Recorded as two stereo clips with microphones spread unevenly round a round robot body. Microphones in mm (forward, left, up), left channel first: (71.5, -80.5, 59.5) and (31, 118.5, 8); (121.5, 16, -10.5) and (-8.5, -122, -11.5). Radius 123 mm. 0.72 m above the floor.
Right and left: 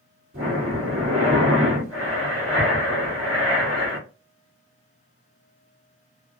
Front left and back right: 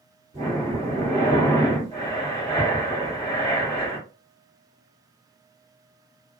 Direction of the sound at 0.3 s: 160° left.